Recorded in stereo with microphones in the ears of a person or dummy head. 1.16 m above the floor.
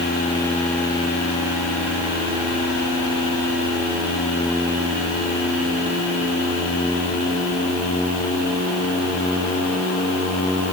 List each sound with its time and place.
Only background noise.